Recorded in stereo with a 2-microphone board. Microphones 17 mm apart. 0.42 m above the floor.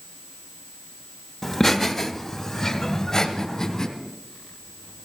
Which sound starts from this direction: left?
Laughter, at 1.4 s.